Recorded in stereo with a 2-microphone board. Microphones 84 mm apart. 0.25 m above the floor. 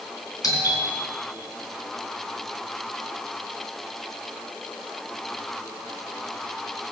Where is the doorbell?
50° left (ahead or behind), 3 m.